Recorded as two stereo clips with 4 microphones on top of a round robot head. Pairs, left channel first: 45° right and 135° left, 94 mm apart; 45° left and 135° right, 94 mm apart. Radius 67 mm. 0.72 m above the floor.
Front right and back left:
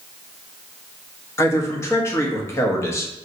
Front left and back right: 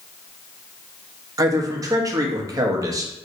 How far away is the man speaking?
About 0.9 m.